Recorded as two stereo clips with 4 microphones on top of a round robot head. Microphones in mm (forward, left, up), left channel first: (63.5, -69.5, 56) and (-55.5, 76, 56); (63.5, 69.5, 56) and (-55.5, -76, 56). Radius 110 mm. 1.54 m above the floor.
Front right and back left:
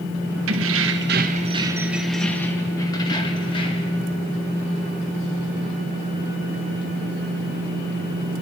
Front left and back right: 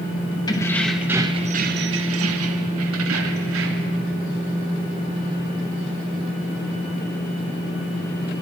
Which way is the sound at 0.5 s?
120° left.